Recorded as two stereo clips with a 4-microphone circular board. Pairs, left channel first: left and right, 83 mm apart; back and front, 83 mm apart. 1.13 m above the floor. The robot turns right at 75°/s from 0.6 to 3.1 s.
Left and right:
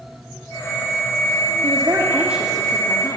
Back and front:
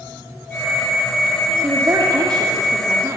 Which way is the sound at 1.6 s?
65° right.